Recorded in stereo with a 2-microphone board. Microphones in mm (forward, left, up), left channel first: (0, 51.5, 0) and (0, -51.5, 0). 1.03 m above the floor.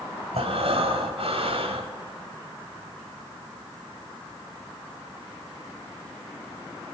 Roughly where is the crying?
No crying in this recording.